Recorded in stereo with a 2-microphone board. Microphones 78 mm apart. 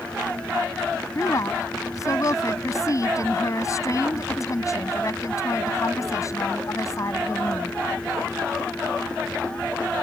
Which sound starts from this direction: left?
A woman speaking, at 1.1 s.